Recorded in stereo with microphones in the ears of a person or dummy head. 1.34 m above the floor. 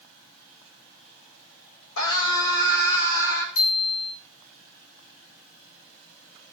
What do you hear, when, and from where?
2.0 s a scream: 70° left (ahead or behind), 8 m; by 3.5 s 65° left (ahead or behind), 8 m
3.5 s a bicycle bell: 70° left (ahead or behind), 7.5 m